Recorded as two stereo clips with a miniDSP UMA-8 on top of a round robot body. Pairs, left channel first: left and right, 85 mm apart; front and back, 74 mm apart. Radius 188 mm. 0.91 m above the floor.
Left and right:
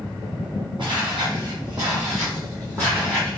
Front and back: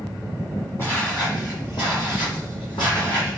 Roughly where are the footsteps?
Ahead right.